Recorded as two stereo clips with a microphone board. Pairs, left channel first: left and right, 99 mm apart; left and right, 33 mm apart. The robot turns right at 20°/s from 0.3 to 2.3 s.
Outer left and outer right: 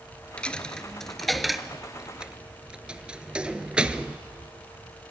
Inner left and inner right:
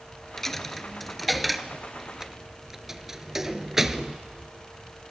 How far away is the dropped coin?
About 0.8 m.